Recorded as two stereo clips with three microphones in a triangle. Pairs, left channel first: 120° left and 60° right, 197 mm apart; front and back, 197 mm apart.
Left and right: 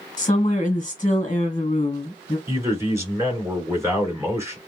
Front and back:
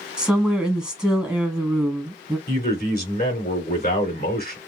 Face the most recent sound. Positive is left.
turn(degrees=10)